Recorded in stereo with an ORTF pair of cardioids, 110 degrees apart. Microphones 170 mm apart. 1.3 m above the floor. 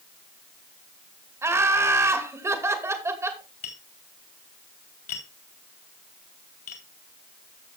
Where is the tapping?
65° left, 3.5 m.